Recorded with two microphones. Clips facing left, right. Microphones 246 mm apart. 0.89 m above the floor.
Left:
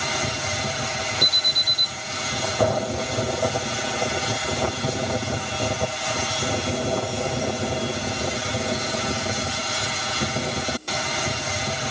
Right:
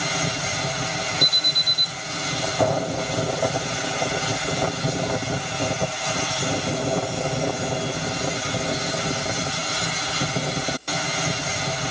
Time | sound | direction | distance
1.2 | an alarm | 50° right (ahead or behind) | 1.9 m